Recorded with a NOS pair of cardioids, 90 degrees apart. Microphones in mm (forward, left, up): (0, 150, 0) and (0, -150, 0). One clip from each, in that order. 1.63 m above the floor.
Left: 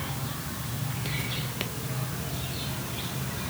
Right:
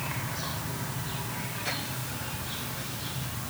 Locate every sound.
Only background noise.